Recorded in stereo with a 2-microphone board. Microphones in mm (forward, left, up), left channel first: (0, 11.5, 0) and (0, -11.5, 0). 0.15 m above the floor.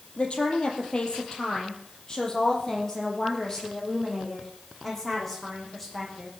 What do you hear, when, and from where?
0.2 s a woman speaking: 45° left (ahead or behind), 3.5 m; by 6.3 s 5° left (ahead or behind), 7 m